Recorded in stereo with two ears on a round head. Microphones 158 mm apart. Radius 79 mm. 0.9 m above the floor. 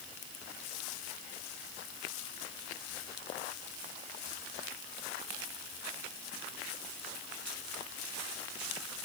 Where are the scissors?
No scissors in this recording.